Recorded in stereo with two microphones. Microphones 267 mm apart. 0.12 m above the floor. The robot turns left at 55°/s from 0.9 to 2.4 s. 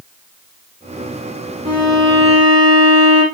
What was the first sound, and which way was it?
A violin, 30° right.